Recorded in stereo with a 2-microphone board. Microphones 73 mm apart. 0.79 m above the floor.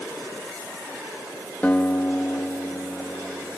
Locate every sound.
1.6 s a guitar: 15° left (ahead or behind), 1.3 m